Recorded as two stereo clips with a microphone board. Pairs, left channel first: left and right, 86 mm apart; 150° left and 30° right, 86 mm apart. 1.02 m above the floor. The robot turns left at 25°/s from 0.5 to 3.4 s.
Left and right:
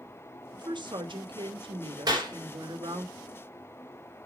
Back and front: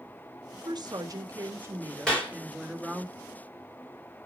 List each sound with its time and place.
0.5 s a woman speaking: 60° right, 1.4 m; by 3.1 s 120° right, 1.4 m
2.1 s a clap: 130° right, 3.5 m; by 2.3 s 135° right, 3.5 m